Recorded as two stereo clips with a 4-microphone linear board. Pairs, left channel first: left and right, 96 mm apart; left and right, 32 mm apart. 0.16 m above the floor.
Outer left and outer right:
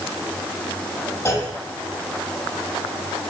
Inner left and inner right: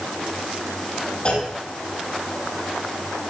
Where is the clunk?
35° left (ahead or behind), 5.5 m.